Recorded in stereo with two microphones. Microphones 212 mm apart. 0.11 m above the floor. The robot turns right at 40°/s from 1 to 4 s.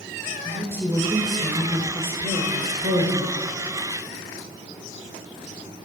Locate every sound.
0.5 s a woman speaking: 155° right, 1.6 m; by 3.4 s 60° right, 1.6 m